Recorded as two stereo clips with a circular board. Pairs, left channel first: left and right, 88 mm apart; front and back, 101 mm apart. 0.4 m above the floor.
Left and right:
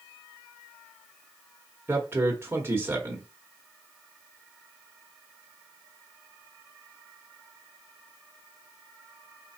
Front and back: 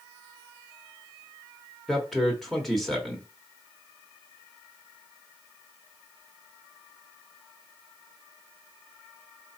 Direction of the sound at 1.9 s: 90° right.